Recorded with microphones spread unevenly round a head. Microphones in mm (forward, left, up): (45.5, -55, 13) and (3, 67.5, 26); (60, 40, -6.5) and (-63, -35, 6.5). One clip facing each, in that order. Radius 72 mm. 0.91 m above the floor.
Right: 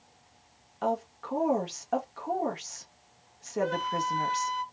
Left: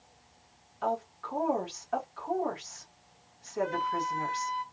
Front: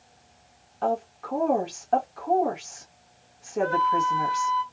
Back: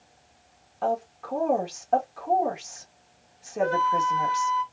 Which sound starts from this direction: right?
A flute, at 3.6 s.